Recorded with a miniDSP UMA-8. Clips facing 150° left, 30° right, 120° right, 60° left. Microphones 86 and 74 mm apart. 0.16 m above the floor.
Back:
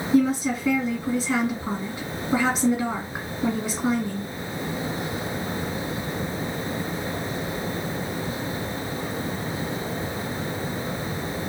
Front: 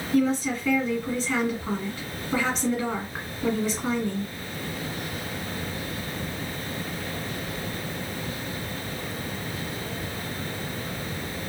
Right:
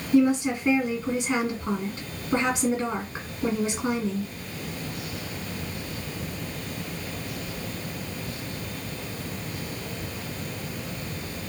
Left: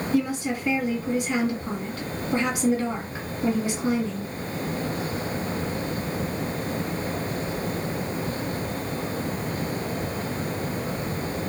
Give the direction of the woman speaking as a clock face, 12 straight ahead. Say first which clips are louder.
Back 2 dB, right 5 dB; 5 o'clock.